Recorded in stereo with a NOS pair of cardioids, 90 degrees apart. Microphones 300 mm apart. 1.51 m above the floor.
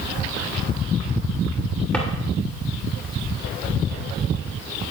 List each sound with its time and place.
1.9 s a drawer: 5° left, 2.5 m